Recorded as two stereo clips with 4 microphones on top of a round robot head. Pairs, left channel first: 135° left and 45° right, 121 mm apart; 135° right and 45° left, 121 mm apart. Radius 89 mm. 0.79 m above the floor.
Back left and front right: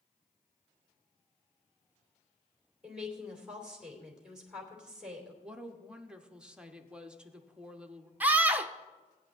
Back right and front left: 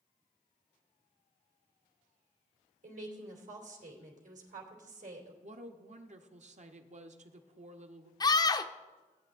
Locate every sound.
2.8 s a woman speaking: 35° left, 2.5 m
5.4 s a woman speaking: 35° left, 1.2 m
8.2 s a scream: 115° right, 0.5 m